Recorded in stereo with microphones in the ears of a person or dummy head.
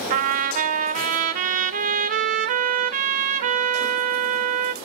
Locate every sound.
0.1 s a trumpet: 45° right (ahead or behind), 1.2 m